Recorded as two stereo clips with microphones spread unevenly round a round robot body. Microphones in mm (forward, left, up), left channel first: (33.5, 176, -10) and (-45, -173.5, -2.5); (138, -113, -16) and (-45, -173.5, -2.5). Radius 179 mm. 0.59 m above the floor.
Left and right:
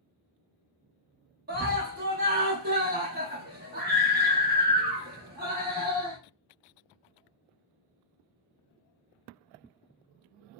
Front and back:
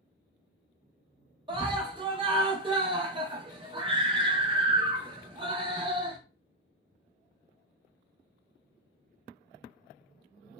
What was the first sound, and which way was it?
A scream, 125° right.